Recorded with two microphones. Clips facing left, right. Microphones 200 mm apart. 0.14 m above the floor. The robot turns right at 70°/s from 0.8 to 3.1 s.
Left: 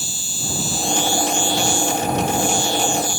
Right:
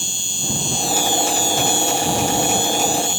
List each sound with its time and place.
0.0 s an insect: 175° left; by 3.2 s 25° right